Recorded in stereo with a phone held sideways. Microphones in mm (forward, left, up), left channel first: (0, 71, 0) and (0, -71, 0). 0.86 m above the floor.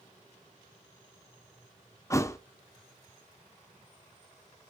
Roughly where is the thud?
Left.